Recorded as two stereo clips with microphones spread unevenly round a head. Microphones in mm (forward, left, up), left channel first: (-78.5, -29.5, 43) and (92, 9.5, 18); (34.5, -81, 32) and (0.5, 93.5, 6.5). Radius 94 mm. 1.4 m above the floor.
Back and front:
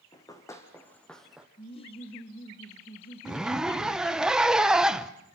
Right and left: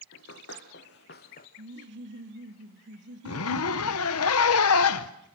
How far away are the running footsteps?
About 3.5 m.